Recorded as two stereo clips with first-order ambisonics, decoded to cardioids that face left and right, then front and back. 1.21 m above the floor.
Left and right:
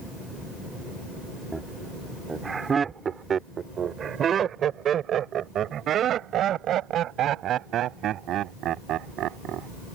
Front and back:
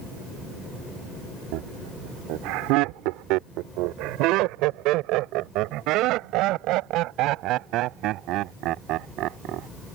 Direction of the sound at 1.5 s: 175° right.